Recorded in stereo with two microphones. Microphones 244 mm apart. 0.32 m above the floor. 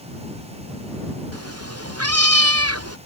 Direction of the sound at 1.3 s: 80° right.